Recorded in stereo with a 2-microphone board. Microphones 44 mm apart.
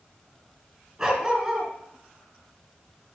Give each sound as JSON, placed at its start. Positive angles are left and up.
{"t": 1.0, "sound": "a dog barking", "side_deg": -25, "distance_m": 2.5}